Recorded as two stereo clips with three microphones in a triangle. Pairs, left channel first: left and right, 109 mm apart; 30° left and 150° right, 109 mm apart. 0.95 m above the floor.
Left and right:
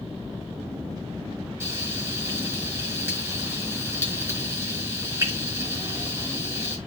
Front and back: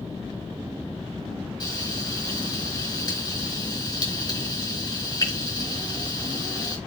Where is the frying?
25° right, 4 m.